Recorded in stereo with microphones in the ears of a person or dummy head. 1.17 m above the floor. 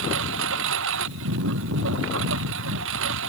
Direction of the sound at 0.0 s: 75° right (ahead or behind).